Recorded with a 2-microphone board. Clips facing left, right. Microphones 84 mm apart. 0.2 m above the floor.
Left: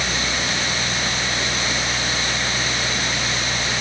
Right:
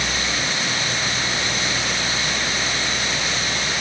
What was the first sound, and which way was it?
Only background noise.